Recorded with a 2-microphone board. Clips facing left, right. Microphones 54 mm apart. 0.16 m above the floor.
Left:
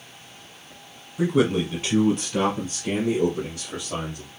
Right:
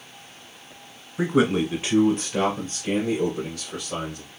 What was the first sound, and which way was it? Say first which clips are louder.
A man speaking: even; 30° right (ahead or behind).